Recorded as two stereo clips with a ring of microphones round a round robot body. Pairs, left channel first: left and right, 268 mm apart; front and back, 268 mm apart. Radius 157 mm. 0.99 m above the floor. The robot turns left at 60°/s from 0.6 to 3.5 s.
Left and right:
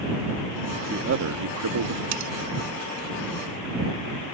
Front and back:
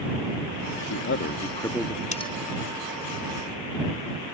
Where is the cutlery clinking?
65° right; by 2.3 s 75° right.